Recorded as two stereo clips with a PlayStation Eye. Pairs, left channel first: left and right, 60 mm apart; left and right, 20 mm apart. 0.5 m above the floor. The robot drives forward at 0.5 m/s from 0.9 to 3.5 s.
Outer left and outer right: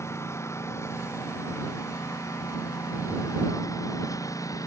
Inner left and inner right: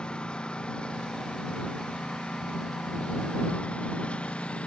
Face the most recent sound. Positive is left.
turn(degrees=70)  # may be behind; listen again after turning